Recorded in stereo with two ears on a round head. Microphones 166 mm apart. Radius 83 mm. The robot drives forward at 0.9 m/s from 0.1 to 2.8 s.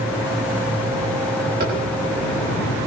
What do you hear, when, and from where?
1.6 s tapping: 50° right (ahead or behind), 6.5 m